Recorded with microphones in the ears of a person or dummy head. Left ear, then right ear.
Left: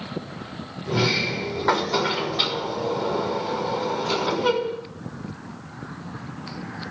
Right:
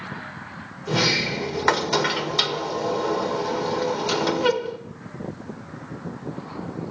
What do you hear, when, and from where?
0.9 s a sliding door: 70° right (ahead or behind), 2.0 m